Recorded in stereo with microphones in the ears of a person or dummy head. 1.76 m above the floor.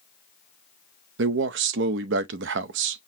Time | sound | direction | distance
1.2 | a man speaking | 65° right (ahead or behind) | 0.5 m